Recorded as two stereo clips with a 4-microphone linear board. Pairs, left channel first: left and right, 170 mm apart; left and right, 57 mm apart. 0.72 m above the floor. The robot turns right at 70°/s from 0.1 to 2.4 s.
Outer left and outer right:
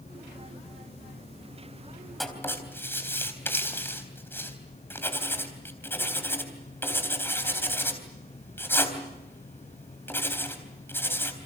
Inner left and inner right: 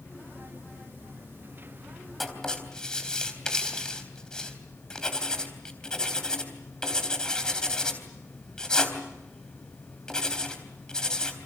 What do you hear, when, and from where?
2.2 s writing: centre (ahead or behind), 3.5 m; by 11.3 s 15° left (ahead or behind), 3.5 m